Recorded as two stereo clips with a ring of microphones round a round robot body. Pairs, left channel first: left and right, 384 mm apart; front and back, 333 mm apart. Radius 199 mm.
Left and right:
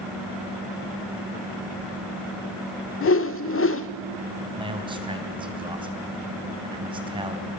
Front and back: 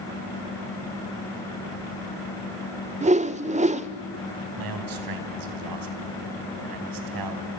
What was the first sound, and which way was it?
A whoosh, 120° left.